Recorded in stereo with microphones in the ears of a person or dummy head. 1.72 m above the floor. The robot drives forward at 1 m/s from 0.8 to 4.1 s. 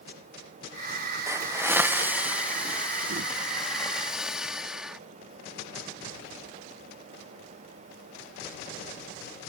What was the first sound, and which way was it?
A hiss, 15° right (ahead or behind).